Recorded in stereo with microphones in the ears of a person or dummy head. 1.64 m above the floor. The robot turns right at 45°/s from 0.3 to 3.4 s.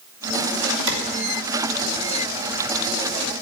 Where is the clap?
75° right (ahead or behind), 4 m; by 1.0 s 80° right, 4 m.